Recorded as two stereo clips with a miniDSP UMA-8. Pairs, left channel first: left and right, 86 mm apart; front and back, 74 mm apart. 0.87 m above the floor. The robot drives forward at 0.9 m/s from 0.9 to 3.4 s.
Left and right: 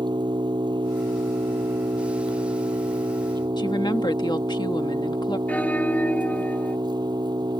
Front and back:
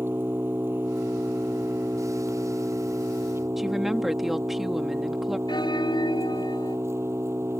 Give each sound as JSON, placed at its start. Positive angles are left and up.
{"t": 0.0, "sound": "an engine running", "azimuth_deg": -120}
{"t": 3.6, "sound": "a woman speaking", "azimuth_deg": 95}
{"t": 5.5, "sound": "a bell", "azimuth_deg": 15}